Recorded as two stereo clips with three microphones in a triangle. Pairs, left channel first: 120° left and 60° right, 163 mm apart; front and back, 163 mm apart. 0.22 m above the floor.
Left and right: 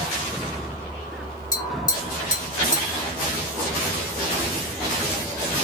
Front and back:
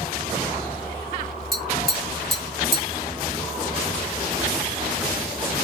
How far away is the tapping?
About 1.5 m.